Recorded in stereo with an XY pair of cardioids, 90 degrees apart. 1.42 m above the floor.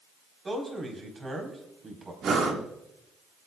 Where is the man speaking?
30° right, 4 m.